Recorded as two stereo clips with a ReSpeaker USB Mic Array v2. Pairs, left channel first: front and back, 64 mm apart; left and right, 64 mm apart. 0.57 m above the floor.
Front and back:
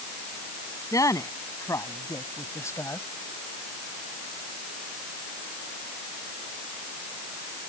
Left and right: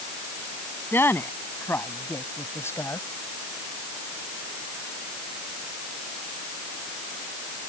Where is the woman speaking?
35° left; by 3.0 s 45° left.